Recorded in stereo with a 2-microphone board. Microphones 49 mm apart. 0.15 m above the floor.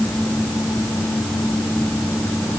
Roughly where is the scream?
No scream in this recording.